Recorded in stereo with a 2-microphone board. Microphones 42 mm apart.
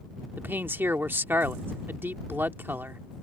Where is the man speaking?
55° right (ahead or behind).